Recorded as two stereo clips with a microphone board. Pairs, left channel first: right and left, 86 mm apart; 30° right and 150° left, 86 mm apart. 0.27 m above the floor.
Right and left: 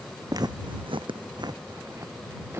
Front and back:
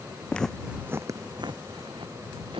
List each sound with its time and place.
0.3 s footsteps: 45° left; by 2.6 s 150° left